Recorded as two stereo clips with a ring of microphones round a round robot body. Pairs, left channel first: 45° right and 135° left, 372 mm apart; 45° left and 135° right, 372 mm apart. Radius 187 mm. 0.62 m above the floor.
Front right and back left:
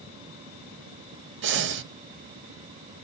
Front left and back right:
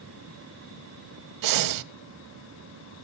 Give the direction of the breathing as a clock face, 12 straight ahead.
6 o'clock.